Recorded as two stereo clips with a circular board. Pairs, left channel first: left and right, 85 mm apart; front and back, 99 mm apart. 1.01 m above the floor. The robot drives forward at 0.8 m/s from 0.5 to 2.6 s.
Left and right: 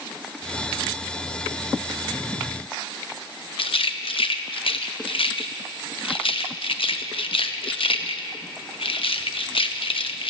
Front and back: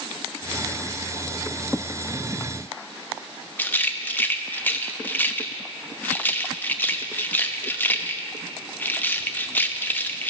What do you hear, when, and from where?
3.6 s a rattle: 75° left, 0.8 m